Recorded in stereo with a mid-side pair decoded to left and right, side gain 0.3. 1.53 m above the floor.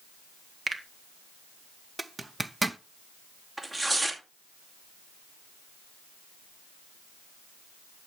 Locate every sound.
0.7 s a finger snap: 50° right, 1.5 m
2.0 s a zipper: 25° right, 0.8 m
3.6 s tearing paper: 35° right, 2.5 m